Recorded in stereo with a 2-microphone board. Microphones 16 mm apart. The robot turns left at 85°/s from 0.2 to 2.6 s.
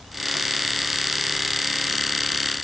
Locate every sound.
Only background noise.